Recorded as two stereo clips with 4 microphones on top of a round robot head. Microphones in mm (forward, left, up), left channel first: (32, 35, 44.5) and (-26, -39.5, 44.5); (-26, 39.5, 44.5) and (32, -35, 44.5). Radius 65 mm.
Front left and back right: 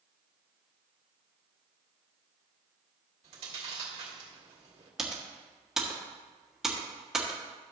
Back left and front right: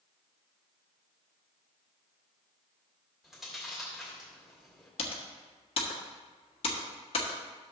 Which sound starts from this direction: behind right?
Chewing, at 3.2 s.